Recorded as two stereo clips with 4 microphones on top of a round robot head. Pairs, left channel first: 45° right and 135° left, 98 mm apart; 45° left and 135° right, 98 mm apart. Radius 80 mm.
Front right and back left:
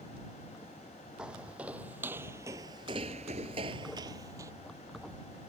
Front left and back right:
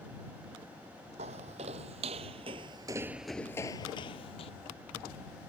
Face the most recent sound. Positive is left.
turn(degrees=75)